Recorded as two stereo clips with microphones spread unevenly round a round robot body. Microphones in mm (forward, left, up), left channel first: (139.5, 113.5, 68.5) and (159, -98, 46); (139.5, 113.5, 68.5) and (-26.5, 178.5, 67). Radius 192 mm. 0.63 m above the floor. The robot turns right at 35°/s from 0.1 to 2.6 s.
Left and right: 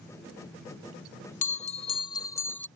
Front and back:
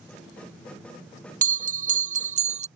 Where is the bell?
140° left; by 2.7 s 175° right.